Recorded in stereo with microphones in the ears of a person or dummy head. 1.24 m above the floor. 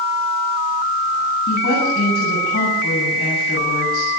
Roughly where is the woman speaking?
Left.